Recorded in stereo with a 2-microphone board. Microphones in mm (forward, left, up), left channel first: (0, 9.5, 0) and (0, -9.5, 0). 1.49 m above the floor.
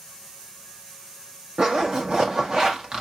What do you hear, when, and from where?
1.6 s a zipper: 40° right (ahead or behind), 1.3 m